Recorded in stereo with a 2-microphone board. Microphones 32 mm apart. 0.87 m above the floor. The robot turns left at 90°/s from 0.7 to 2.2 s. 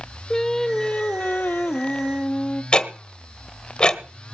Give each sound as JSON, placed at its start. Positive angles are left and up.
{"t": 0.3, "sound": "singing", "azimuth_deg": 165, "distance_m": 1.2}
{"t": 2.7, "sound": "ticking", "side_deg": 25, "distance_m": 1.2}